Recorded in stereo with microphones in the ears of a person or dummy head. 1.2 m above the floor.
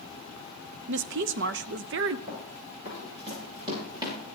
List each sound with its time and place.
0.9 s a woman speaking: 70° right (ahead or behind), 0.7 m
2.3 s running footsteps: 40° right (ahead or behind), 6 m; by 4.2 s 20° right (ahead or behind), 7 m